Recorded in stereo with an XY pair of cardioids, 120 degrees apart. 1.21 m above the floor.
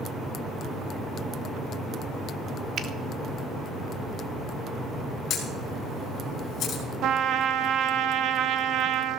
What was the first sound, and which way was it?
A finger snap, 45° right.